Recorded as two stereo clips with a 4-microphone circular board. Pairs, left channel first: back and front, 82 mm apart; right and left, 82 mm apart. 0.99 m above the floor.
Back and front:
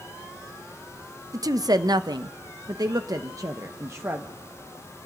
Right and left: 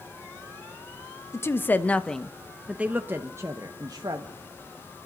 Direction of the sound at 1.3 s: 35° right.